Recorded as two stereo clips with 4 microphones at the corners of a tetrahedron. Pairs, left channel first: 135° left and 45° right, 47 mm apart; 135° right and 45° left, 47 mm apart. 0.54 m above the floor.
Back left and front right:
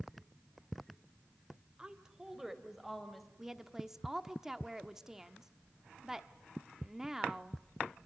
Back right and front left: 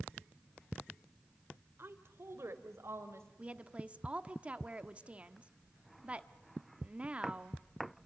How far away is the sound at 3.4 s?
About 1.2 m.